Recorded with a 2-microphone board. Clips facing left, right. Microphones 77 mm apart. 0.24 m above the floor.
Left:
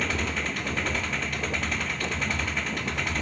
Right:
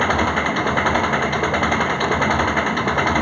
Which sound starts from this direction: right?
An engine running, at 0.0 s.